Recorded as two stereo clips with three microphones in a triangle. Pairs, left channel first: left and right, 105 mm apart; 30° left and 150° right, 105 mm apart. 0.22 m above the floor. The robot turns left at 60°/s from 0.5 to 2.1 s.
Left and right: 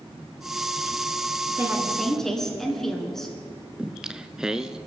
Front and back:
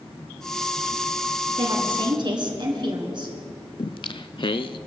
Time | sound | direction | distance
1.6 | a woman speaking | 155° right | 3 m
3.8 | singing | 5° right | 0.5 m